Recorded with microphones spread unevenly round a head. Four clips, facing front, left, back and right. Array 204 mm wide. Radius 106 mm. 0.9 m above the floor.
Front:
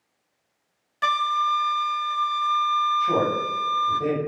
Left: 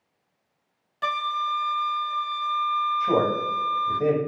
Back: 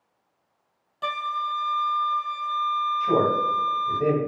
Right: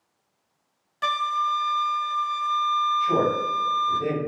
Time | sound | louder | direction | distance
1.0 | a flute | right 2 dB, front 6 dB | 85° left | 0.6 m
3.0 | a man speaking | even, back 1 dB | 100° left | 2 m